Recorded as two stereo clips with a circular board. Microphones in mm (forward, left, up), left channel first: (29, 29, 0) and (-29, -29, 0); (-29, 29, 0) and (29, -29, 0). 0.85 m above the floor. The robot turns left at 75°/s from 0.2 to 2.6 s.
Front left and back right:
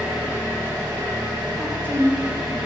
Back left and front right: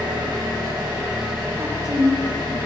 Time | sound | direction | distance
0.0 | an engine running | 50° right | 1.9 m
1.6 | a woman speaking | straight ahead | 0.7 m